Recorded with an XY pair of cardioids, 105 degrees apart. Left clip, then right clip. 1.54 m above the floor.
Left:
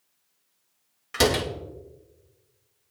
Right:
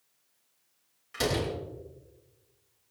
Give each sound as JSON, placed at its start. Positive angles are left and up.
{"t": 1.1, "sound": "a door slam", "azimuth_deg": 65, "distance_m": 3.0}